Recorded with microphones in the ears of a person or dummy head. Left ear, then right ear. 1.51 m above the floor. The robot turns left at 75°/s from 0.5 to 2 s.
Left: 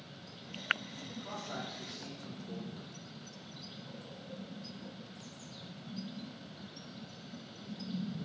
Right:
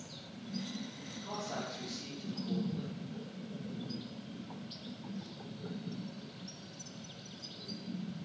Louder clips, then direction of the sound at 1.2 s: Right 2 dB; 65° left.